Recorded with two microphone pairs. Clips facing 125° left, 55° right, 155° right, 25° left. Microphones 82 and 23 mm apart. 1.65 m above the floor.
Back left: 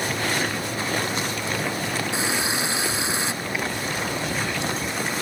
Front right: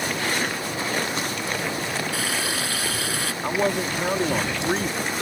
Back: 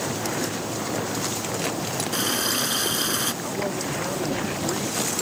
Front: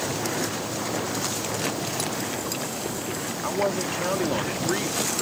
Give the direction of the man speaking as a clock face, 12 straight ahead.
1 o'clock.